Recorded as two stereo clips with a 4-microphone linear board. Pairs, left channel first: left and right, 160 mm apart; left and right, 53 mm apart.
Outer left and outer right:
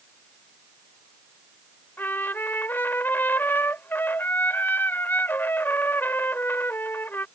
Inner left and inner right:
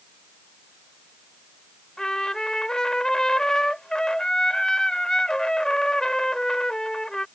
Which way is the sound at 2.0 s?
15° left (ahead or behind).